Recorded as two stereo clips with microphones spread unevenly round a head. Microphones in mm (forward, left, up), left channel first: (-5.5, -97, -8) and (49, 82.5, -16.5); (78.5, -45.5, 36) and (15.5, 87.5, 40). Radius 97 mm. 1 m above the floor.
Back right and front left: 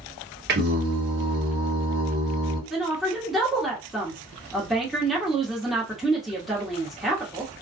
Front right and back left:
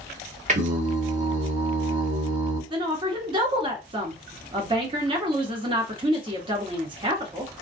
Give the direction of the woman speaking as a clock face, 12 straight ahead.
7 o'clock.